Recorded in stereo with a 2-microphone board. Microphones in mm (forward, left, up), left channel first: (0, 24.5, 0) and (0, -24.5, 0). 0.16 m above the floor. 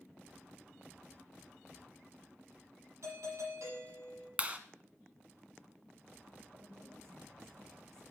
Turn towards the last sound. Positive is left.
turn(degrees=-70)  # may be behind; listen again after turning